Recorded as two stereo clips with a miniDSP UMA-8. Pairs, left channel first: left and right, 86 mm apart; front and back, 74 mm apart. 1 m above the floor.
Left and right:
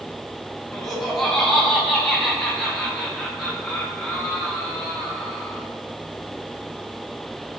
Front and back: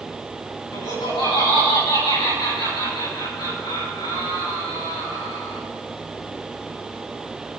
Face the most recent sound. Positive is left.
turn(degrees=5)